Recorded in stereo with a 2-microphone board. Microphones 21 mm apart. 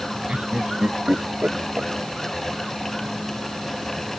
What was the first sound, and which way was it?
Laughter, 60° right (ahead or behind).